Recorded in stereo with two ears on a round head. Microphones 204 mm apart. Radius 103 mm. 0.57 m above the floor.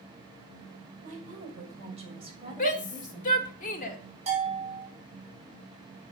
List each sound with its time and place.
1.0 s a woman speaking: 40° right (ahead or behind), 3.5 m; by 3.4 s 15° right (ahead or behind), 3.5 m
2.6 s a shout: 35° left (ahead or behind), 1.6 m
4.3 s a bell: 30° right (ahead or behind), 4.5 m